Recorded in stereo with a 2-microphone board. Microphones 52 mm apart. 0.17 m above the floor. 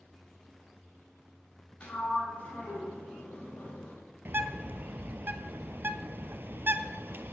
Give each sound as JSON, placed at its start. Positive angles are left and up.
{"t": 1.8, "sound": "a sliding door", "side_deg": 25, "distance_m": 7.0}
{"t": 4.2, "sound": "a bird", "side_deg": -45, "distance_m": 0.6}